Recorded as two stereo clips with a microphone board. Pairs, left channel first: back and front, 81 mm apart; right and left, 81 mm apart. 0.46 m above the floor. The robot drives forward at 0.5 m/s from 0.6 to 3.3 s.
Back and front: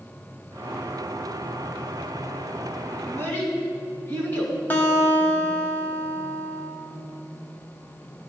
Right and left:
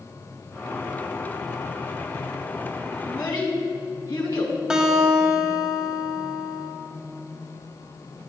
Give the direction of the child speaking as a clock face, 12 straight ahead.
4 o'clock.